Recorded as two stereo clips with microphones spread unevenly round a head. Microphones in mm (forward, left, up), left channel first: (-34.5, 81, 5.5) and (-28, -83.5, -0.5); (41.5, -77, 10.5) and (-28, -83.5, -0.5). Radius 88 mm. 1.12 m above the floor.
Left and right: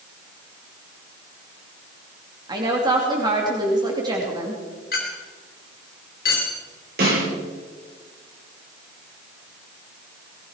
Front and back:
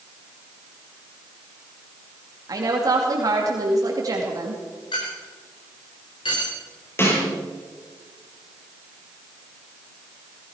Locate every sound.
2.5 s a woman speaking: 150° right, 2.5 m
4.9 s a clink: 50° left, 3.5 m
7.0 s a snare drum: 45° right, 8 m